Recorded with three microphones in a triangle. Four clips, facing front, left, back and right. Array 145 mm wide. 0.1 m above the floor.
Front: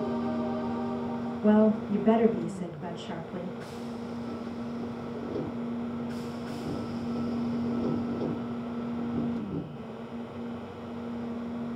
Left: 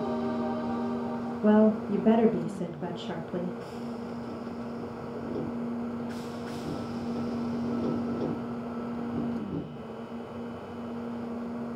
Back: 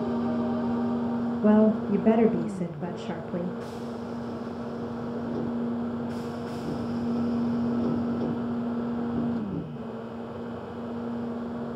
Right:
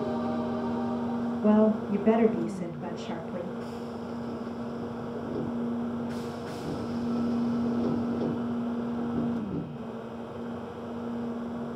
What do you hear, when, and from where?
1.4 s a woman speaking: 160° left, 2 m